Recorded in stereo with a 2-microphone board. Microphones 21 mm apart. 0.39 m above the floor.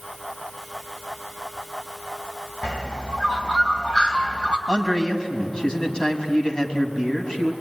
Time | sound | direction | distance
2.6 | a bird | 45° left (ahead or behind) | 1.9 m
4.7 | a man speaking | 35° left (ahead or behind) | 3.5 m